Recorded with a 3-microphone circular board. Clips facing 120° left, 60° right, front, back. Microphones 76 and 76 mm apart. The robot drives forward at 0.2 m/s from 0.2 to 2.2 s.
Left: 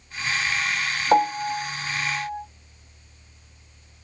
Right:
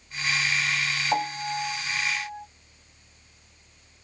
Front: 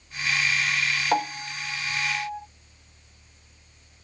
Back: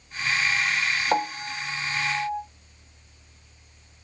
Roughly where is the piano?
Left.